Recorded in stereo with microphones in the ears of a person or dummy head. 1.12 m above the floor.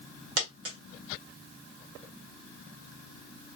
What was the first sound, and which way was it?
A dropped coin, 75° right (ahead or behind).